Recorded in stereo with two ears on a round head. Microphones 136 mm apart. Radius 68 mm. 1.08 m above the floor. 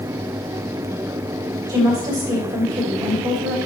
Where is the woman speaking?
25° right (ahead or behind), 2 m.